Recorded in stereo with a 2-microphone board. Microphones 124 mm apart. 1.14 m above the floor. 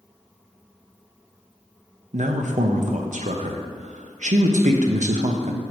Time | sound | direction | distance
2.1 | a man speaking | 75° right (ahead or behind) | 0.7 m